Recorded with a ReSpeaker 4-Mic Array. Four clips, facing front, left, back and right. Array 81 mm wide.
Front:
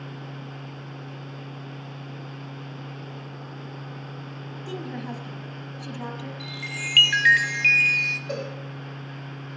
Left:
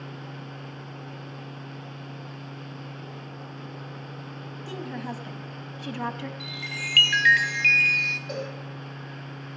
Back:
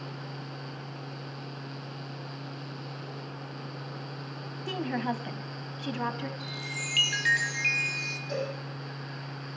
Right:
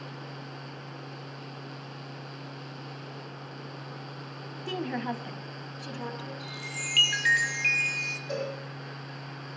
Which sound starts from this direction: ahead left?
A chime, at 6.4 s.